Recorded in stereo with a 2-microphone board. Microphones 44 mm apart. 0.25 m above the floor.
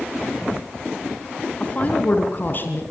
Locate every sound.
1.6 s a woman speaking: 30° left (ahead or behind), 3 m; by 2.8 s 50° left (ahead or behind), 3 m